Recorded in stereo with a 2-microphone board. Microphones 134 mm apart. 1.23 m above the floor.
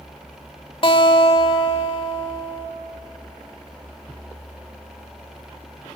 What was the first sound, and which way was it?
A guitar, 40° left (ahead or behind).